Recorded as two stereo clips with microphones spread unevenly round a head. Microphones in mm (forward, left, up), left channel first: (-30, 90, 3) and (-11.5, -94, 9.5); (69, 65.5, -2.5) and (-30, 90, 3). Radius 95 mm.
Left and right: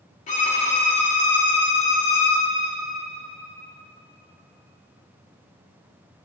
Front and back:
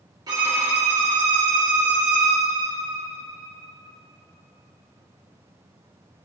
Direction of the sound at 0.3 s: 135° left.